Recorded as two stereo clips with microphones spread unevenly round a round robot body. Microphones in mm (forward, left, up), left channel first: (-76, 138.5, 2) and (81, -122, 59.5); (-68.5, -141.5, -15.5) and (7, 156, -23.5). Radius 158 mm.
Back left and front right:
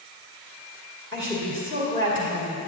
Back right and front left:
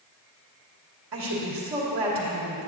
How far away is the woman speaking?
About 1.7 m.